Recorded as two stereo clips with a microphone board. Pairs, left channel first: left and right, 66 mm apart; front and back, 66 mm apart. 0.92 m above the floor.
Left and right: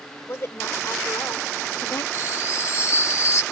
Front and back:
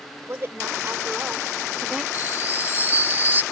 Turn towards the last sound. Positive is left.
turn(degrees=125)